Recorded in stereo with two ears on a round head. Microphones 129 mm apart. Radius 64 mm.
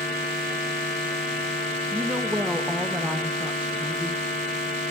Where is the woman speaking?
10° right (ahead or behind), 0.7 m.